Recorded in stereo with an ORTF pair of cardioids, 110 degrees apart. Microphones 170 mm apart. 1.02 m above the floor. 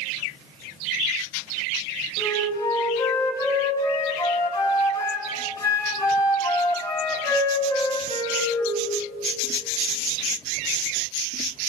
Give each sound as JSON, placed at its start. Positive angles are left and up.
{"t": 2.2, "sound": "a flute", "azimuth_deg": 20, "distance_m": 7.0}